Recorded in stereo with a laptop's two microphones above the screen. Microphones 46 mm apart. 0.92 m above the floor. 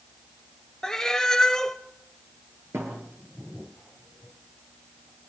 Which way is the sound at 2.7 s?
80° right.